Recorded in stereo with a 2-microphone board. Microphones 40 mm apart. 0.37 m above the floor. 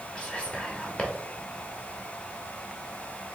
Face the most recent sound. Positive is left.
turn(degrees=25)  # may be behind; listen again after turning